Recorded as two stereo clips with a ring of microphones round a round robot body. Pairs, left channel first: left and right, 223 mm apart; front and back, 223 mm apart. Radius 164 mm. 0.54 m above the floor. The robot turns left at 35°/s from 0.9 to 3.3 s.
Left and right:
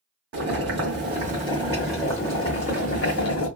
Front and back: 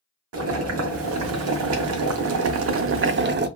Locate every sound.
0.3 s boiling: 140° right, 0.6 m; by 3.5 s 135° left, 0.6 m